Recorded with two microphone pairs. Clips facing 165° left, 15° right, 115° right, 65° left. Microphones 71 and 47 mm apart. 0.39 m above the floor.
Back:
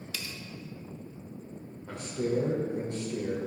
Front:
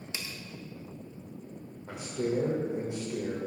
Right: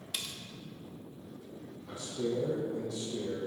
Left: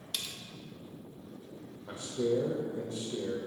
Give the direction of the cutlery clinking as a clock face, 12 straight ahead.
1 o'clock.